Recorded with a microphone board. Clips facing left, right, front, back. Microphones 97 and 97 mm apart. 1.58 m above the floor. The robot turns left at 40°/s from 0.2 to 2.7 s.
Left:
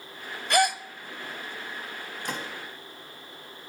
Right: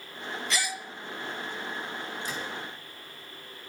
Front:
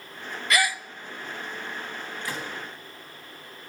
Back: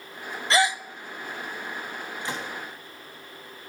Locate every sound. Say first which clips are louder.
0.5 s a gasp: left 12 dB, back 3 dB; 120° left, 0.5 m; by 0.8 s 105° left, 0.5 m
2.2 s a gunshot: left 5 dB, back 1 dB; 115° left, 3.5 m; by 2.5 s 105° left, 3.5 m